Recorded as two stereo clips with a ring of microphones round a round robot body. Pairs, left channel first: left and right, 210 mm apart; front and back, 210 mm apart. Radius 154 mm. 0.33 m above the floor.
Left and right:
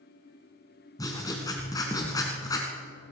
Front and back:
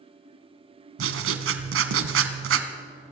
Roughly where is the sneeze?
No sneeze in this recording.